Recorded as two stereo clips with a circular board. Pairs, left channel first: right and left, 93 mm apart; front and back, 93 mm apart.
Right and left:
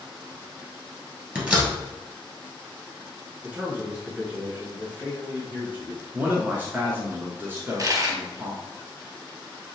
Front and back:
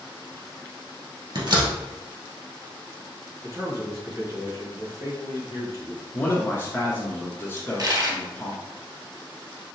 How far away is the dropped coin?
About 1.1 m.